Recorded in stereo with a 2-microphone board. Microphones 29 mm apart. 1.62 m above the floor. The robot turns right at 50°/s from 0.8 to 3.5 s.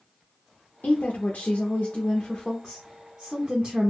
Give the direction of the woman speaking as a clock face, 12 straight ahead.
9 o'clock.